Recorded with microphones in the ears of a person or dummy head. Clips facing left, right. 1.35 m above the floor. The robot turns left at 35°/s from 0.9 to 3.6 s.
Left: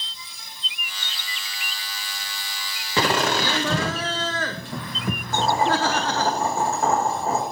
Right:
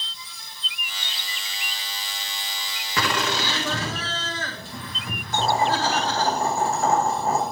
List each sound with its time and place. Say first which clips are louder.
3.0 s laughter: left 4 dB; 25° left (ahead or behind), 0.8 m; by 6.3 s 45° left (ahead or behind), 0.8 m
5.3 s boiling: even; 40° left (ahead or behind), 6 m